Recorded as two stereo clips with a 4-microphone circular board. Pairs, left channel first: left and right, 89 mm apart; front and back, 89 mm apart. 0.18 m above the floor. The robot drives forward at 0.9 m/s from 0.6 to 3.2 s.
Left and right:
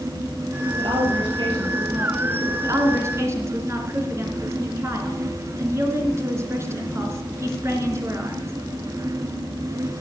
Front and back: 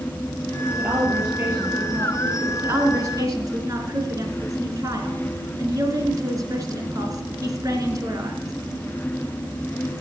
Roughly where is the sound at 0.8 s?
Right.